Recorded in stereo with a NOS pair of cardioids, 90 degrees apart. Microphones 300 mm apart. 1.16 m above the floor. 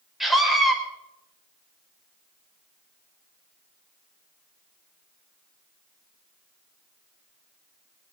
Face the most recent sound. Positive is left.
turn(degrees=0)